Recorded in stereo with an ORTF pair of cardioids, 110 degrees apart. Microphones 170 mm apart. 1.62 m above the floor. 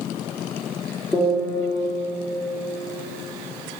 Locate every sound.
1.1 s a piano: 15° left, 2.5 m